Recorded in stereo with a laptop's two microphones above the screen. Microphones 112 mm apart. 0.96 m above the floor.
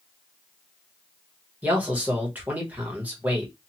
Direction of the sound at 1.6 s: 15° right (ahead or behind).